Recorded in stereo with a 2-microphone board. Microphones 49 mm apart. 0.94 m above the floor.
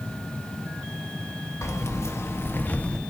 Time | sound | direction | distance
1.6 | keys jangling | 80° left | 1.1 m